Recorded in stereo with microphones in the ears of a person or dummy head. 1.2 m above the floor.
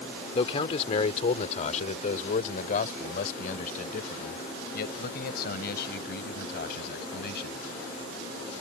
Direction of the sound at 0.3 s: 40° left (ahead or behind).